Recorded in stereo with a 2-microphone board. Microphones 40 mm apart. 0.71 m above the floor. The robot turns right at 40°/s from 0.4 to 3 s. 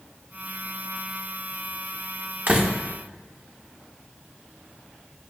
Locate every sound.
2.5 s a door slam: 45° right (ahead or behind), 1.3 m; by 2.7 s 35° right (ahead or behind), 1.3 m